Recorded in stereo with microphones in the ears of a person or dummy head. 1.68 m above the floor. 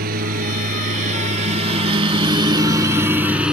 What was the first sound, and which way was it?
A lawn mower, 50° right (ahead or behind).